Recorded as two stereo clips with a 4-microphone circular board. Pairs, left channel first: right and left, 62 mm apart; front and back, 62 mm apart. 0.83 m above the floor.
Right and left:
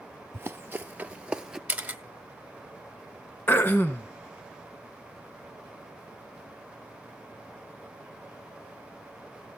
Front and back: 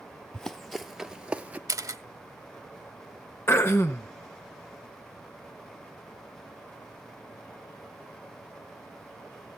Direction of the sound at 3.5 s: 35° right.